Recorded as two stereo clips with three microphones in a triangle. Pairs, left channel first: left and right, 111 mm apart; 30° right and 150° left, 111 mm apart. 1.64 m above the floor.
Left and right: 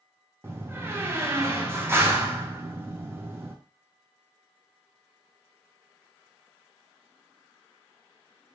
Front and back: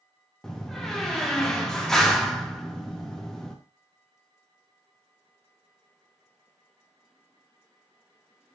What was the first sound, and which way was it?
A door slam, 110° right.